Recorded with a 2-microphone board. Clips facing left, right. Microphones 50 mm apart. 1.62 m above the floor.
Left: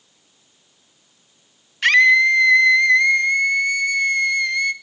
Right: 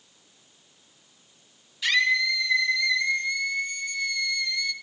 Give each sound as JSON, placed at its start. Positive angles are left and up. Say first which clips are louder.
{"t": 1.8, "sound": "a scream", "louder": "left 10 dB", "side_deg": 55, "distance_m": 1.6}